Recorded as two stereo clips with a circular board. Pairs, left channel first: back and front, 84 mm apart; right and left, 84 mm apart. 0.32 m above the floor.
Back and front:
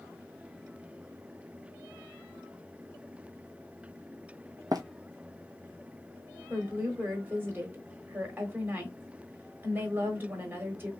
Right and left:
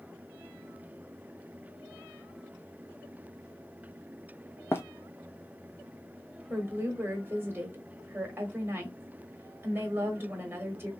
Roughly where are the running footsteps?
Ahead right.